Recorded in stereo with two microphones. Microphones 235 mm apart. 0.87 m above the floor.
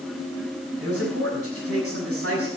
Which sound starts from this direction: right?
A man speaking, at 0.8 s.